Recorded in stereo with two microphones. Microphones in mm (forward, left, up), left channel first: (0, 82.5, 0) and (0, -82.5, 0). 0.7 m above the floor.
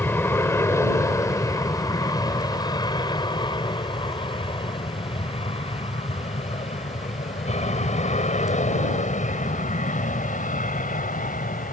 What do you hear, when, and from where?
0.0 s an aircraft: 15° left (ahead or behind); by 11.7 s 55° left (ahead or behind)